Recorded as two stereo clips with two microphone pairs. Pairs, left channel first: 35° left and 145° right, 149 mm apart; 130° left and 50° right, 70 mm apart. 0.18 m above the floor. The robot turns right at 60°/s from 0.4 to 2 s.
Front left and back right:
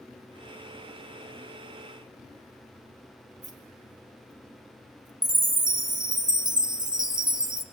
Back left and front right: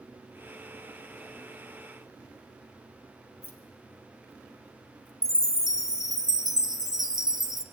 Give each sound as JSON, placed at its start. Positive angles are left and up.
{"t": 3.4, "sound": "keys jangling", "azimuth_deg": 180, "distance_m": 3.5}
{"t": 5.2, "sound": "a chime", "azimuth_deg": 155, "distance_m": 1.2}